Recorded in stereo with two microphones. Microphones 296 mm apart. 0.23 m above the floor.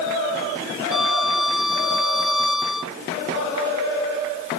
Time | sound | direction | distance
0.9 | a violin | 85° left | ?